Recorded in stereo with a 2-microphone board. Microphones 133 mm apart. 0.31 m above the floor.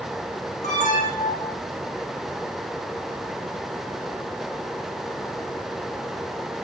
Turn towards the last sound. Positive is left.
turn(degrees=60)  # may be behind; listen again after turning